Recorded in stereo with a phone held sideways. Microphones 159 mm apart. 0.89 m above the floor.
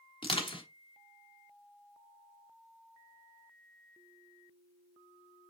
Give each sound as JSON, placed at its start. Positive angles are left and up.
{"t": 0.2, "sound": "crushing", "side_deg": 35, "distance_m": 1.2}